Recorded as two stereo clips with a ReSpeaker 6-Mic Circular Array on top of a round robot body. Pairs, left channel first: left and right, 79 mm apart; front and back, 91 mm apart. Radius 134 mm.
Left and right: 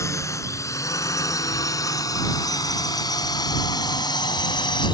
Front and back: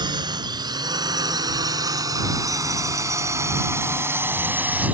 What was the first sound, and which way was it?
A drone, 140° left.